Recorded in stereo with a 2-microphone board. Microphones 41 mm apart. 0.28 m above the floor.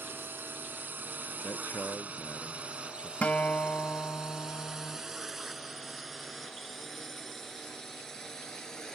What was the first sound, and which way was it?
A drone, 55° right (ahead or behind).